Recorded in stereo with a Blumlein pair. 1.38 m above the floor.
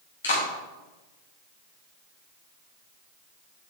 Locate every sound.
0.2 s a clap: 70° left, 3 m